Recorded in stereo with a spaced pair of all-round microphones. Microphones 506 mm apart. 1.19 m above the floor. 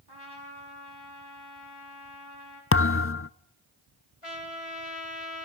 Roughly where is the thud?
Left.